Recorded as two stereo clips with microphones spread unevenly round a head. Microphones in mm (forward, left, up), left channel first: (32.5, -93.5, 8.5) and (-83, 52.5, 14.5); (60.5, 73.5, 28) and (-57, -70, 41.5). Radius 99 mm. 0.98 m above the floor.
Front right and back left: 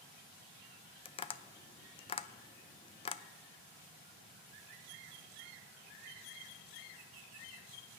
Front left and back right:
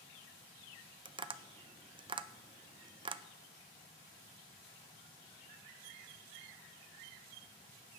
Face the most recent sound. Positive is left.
turn(degrees=-80)